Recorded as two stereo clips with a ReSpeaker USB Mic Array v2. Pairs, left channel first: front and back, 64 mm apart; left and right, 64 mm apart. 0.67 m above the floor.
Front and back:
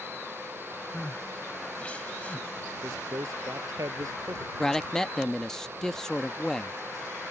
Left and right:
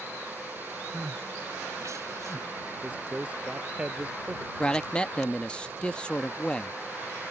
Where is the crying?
70° right.